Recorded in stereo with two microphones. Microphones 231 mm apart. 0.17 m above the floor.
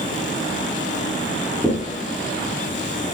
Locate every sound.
1.6 s knocking: centre (ahead or behind), 1.5 m